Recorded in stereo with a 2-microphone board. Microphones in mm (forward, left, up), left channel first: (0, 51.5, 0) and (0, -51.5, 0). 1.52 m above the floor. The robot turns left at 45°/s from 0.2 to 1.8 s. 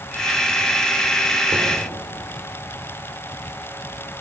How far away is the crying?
No crying in this recording.